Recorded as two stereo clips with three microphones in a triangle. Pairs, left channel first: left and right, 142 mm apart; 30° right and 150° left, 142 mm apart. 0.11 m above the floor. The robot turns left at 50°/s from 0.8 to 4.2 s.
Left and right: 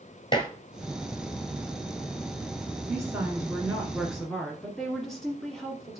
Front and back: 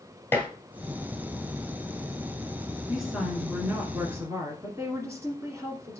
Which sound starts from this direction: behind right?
A woman speaking, at 2.9 s.